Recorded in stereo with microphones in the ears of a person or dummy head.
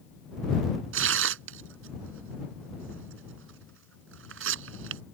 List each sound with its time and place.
0.9 s tearing paper: 85° right